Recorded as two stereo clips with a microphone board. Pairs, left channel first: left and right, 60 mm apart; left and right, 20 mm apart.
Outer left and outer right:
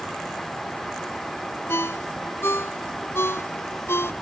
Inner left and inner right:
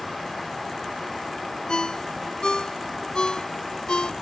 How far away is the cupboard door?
I don't hear a cupboard door.